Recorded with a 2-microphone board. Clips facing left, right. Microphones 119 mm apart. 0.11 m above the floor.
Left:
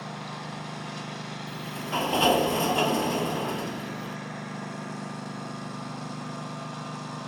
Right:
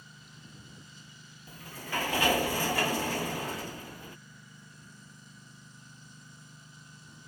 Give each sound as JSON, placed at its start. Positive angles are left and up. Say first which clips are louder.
{"t": 0.0, "sound": "a lawn mower", "louder": "left 18 dB", "side_deg": 80}
{"t": 1.5, "sound": "a sliding door", "louder": "left 5 dB", "side_deg": 25}